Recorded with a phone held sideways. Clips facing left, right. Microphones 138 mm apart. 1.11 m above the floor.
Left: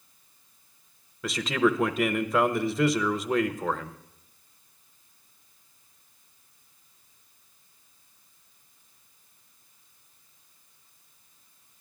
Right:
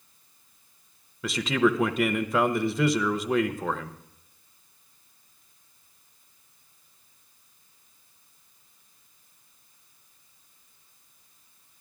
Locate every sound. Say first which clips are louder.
1.2 s a man speaking: right 1 dB; centre (ahead or behind), 0.7 m